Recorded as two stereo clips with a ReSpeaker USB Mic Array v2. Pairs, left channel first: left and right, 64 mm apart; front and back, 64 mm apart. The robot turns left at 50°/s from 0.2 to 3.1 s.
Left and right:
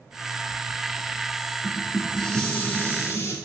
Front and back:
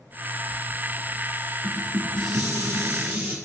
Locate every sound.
1.6 s dishes clattering: 160° right, 1.4 m; by 3.4 s 125° left, 1.4 m